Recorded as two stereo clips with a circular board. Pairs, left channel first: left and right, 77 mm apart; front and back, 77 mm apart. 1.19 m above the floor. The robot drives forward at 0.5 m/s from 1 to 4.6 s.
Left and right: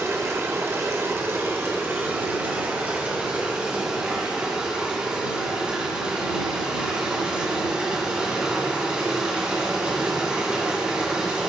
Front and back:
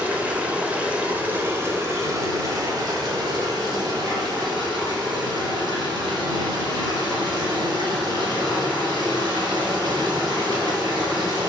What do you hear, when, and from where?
0.0 s running water: 120° right, 1.1 m; by 11.5 s 165° right, 2.5 m